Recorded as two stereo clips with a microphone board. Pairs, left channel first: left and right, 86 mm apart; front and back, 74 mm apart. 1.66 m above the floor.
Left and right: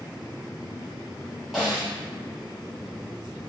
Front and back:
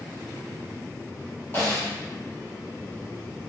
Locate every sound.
1.5 s a snare drum: 10° right, 1.4 m